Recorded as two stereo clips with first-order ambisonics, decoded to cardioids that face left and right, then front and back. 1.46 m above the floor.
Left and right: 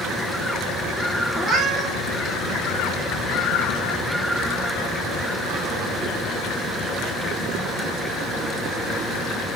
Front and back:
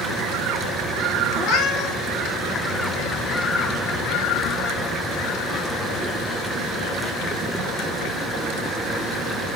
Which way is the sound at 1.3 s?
20° right.